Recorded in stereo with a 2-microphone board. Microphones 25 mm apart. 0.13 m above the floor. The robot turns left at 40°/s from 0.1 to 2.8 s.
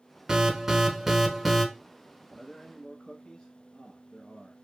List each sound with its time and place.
0.3 s an alarm: 20° right (ahead or behind), 0.8 m; by 1.6 s centre (ahead or behind), 0.8 m
2.3 s a man speaking: 15° left (ahead or behind), 1.1 m; by 4.6 s 20° left (ahead or behind), 1.1 m